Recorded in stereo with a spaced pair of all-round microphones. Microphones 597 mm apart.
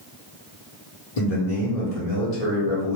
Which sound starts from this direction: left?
A man speaking, at 1.2 s.